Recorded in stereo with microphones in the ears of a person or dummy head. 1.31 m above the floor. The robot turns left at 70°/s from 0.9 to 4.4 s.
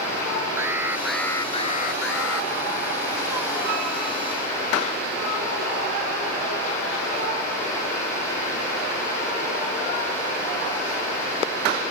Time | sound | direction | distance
0.6 | an alarm | 170° right | ?